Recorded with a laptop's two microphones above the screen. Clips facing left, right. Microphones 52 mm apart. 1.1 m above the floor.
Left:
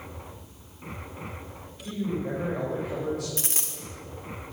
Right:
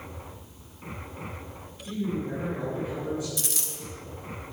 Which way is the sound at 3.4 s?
35° left (ahead or behind).